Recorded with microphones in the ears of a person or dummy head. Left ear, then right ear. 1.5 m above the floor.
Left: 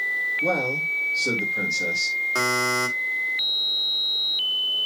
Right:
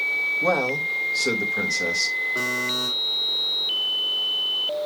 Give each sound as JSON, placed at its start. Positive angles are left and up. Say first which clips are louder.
{"t": 0.4, "sound": "a man speaking", "louder": "right 1 dB", "side_deg": -45, "distance_m": 2.0}
{"t": 2.4, "sound": "a buzzer", "louder": "left 2 dB", "side_deg": 45, "distance_m": 2.5}